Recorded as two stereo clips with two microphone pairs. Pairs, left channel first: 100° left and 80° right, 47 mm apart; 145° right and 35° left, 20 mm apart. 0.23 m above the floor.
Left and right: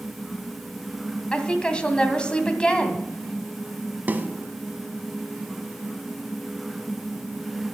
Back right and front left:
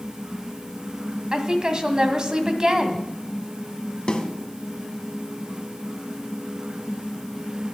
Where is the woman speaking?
40° left, 1.8 m.